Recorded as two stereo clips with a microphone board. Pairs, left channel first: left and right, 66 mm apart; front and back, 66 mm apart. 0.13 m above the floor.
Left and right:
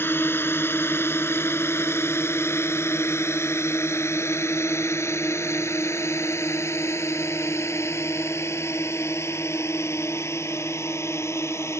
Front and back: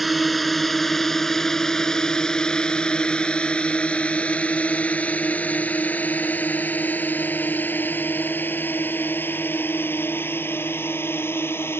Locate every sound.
0.0 s a drone: 90° left; by 11.8 s 50° left